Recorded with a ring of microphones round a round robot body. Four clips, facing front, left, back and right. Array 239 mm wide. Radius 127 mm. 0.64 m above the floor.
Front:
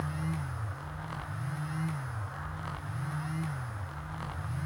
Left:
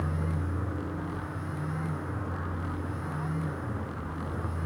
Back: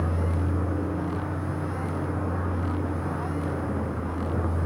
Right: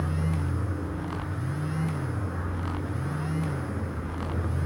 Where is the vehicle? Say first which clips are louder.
Right 3 dB, back 7 dB; 175° right; by 4.7 s 165° right.